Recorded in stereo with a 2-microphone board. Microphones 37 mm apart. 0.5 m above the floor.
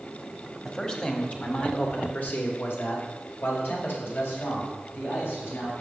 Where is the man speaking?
20° left (ahead or behind), 1.4 m; by 5.7 s 70° left (ahead or behind), 4 m.